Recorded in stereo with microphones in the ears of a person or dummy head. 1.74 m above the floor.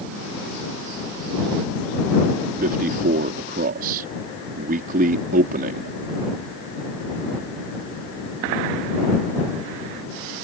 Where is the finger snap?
No finger snap in this recording.